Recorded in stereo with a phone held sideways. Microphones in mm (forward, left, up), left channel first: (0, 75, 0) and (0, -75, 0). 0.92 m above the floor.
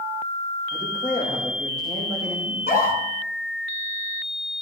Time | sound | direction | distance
0.7 | a man speaking | 45° left (ahead or behind) | 4.5 m
2.5 | a scream | 75° left (ahead or behind) | 8 m